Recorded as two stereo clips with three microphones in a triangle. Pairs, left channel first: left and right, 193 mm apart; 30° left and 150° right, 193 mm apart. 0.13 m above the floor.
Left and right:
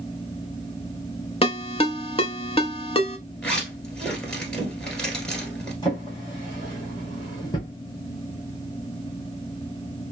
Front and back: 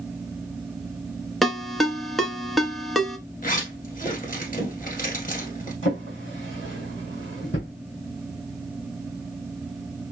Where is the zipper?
5° left, 1.7 m.